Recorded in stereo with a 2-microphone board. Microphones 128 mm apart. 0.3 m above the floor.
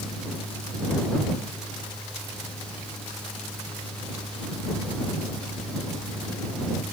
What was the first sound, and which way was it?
Only background noise.